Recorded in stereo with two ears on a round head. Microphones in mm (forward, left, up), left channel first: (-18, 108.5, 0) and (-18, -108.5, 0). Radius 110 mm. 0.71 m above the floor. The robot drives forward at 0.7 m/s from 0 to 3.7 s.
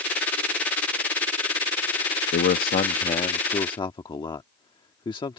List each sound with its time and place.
2.3 s a man speaking: 40° left (ahead or behind); by 5.4 s 20° left (ahead or behind)